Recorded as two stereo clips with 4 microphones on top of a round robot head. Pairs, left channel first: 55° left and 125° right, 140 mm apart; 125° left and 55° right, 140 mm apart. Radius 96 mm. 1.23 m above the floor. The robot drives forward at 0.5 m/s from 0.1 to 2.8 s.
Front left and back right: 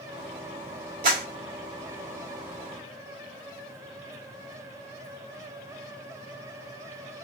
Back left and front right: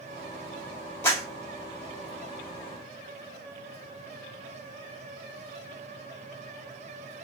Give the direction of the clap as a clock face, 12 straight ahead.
5 o'clock.